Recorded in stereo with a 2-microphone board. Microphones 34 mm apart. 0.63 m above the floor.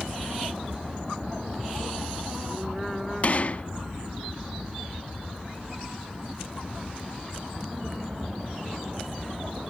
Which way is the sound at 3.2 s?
40° left (ahead or behind).